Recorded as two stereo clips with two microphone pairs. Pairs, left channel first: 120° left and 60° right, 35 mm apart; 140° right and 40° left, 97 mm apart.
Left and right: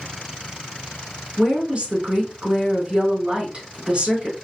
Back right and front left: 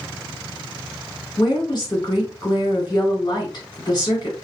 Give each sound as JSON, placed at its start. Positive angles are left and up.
{"t": 1.4, "sound": "a woman speaking", "azimuth_deg": -105, "distance_m": 3.0}